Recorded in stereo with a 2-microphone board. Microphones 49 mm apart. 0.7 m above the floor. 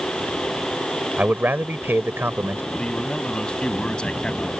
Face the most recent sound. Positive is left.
turn(degrees=20)  # may be behind; listen again after turning